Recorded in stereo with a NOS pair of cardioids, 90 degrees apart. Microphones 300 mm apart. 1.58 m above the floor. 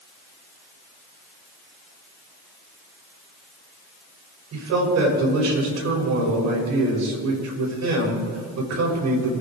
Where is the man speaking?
60° right, 7 m.